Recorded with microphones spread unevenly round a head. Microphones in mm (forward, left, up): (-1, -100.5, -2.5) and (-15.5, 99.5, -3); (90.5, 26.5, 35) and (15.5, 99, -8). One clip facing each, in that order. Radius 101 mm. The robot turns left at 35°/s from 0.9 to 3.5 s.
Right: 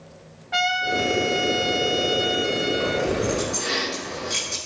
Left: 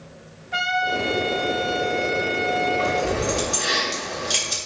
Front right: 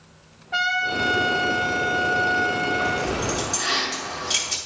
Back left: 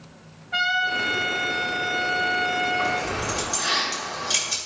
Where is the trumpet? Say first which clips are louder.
Right 1 dB, front right 1 dB; 75° right, 0.7 m; by 3.1 s 150° right, 0.7 m.